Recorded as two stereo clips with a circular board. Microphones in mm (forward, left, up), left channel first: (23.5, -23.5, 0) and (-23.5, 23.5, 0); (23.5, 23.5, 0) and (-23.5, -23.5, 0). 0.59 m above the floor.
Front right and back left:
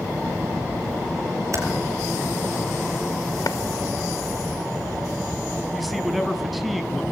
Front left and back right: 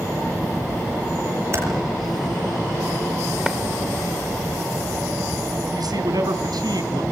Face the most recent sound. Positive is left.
turn(degrees=-135)